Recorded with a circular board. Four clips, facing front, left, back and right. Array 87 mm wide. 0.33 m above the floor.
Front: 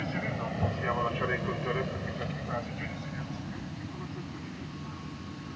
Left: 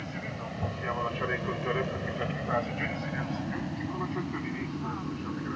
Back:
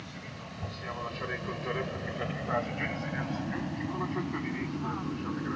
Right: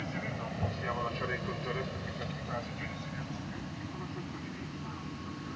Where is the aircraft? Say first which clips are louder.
Even, front 11 dB; 5° right; by 5.6 s 140° left.